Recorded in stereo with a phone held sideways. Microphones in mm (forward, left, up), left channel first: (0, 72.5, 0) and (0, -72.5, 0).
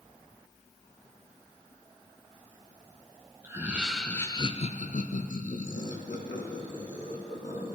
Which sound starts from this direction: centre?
Laughter, at 3.4 s.